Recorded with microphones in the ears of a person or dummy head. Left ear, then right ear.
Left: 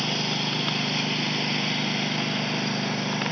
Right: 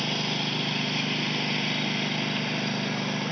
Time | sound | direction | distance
0.0 | a lawn mower | centre (ahead or behind) | ?